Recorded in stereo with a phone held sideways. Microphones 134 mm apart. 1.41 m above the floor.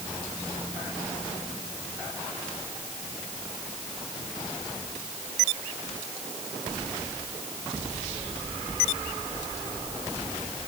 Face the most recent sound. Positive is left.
No sound to turn to.